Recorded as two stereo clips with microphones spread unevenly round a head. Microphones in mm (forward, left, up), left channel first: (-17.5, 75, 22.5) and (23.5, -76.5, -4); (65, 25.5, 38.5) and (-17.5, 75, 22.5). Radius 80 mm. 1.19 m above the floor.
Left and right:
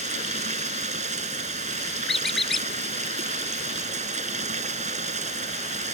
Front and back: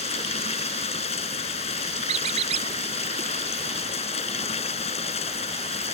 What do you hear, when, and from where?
0.0 s running water: 25° right
2.1 s a squeak: 165° right